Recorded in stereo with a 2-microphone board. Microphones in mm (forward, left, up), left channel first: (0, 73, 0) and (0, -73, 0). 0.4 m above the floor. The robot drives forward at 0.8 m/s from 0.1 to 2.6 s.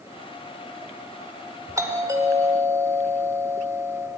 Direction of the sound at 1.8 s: 20° right (ahead or behind).